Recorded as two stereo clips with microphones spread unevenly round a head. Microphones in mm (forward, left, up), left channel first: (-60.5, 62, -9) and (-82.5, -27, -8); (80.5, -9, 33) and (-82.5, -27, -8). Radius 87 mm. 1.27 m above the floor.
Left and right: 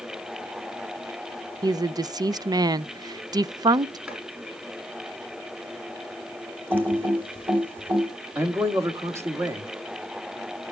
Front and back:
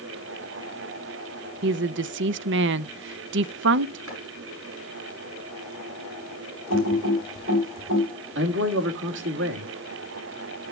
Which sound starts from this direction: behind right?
A woman speaking, at 1.6 s.